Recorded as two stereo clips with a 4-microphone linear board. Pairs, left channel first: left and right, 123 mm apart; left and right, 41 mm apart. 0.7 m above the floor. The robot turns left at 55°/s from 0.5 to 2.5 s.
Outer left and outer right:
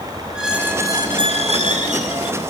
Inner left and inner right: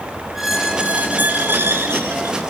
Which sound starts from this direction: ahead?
A squeak, at 0.3 s.